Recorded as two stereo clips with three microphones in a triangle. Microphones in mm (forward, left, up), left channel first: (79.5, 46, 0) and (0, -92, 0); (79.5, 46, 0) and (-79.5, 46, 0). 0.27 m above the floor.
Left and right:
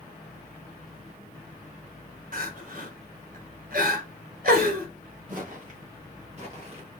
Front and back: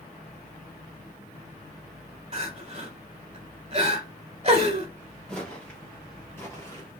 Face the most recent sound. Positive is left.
turn(degrees=-65)